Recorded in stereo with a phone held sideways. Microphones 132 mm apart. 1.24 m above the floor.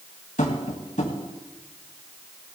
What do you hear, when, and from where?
0.4 s tapping: 70° left (ahead or behind), 2.5 m